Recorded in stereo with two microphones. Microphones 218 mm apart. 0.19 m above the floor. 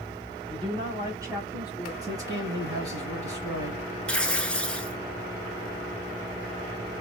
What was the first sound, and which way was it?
A woman speaking, 25° right (ahead or behind).